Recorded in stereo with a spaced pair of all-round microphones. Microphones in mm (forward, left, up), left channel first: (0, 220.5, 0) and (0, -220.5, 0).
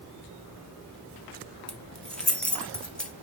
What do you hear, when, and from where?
1.7 s keys jangling: centre (ahead or behind), 1.2 m